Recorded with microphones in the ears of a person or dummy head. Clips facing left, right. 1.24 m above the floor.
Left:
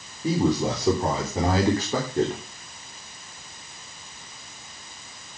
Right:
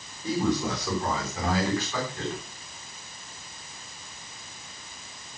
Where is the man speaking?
15° left (ahead or behind), 3.5 m; by 2.4 s 35° left (ahead or behind), 4 m.